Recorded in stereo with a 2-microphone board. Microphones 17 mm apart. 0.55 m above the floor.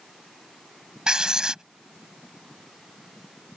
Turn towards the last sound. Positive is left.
turn(degrees=-50)  # may be behind; listen again after turning